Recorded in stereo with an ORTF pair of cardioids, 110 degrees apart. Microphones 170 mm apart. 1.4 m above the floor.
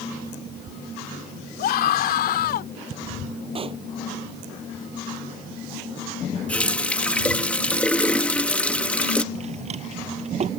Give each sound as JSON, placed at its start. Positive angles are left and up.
{"t": 1.6, "sound": "a scream", "azimuth_deg": 65}
{"t": 3.5, "sound": "a pop", "azimuth_deg": -35}
{"t": 6.5, "sound": "a running tap", "azimuth_deg": 5}
{"t": 9.3, "sound": "a drawer", "azimuth_deg": -40}